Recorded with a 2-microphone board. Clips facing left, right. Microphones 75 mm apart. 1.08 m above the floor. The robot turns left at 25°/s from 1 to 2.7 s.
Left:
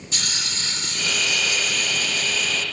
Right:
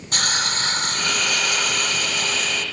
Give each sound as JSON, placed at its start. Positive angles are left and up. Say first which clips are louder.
{"t": 0.1, "sound": "a hiss", "louder": "right 8 dB", "azimuth_deg": -60}